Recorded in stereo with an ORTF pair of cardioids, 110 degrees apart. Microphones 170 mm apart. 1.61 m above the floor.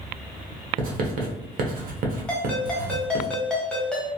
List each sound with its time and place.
0.8 s writing: 55° right, 0.9 m
2.3 s a ringtone: 5° left, 1.5 m